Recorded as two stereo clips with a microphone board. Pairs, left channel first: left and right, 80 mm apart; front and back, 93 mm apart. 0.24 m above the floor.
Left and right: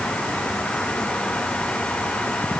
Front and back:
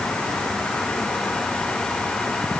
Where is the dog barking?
I don't hear a dog barking.